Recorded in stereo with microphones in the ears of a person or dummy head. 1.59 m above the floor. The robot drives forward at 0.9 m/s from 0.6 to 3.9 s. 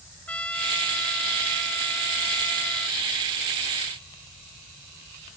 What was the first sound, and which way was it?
A trumpet, 10° left (ahead or behind).